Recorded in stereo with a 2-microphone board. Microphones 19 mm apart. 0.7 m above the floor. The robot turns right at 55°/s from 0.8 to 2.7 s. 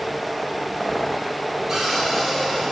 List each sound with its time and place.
1.7 s a cupboard door: 20° right, 3 m; by 2.7 s 35° left, 3 m